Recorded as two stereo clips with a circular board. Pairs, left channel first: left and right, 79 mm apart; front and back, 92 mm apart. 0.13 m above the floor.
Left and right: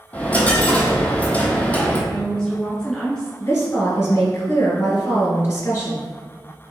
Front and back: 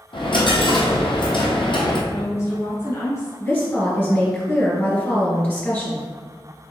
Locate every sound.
0.1 s a dropped coin: 20° left, 1.1 m
2.1 s a woman speaking: 15° left, 1.3 m
3.4 s a woman speaking: 50° left, 1.6 m